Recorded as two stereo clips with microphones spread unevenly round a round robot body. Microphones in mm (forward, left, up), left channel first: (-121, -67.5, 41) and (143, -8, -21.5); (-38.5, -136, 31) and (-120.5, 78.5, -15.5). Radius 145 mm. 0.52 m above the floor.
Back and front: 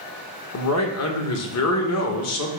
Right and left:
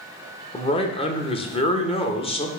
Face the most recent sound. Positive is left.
turn(degrees=-140)